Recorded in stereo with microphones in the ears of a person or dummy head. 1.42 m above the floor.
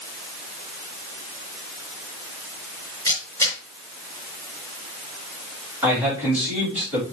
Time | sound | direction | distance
3.1 | a camera shutter | 15° left (ahead or behind) | 4.5 m
5.8 | a man speaking | 10° right (ahead or behind) | 4 m